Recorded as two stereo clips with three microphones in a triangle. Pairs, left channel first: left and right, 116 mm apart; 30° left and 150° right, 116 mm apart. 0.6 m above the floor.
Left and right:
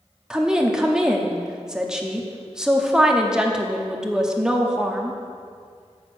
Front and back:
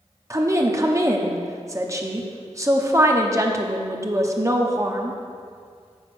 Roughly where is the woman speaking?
Behind.